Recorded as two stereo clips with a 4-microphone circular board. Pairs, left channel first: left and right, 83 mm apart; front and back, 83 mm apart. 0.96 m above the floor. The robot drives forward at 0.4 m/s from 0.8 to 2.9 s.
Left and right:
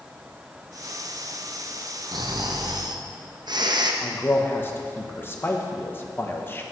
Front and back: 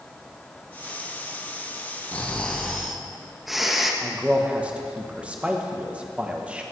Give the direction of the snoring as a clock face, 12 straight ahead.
2 o'clock.